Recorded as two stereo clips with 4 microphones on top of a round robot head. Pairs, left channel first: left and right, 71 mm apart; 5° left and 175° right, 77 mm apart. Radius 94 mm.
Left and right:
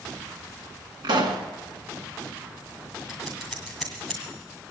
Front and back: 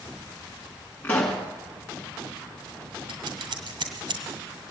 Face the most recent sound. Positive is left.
turn(degrees=180)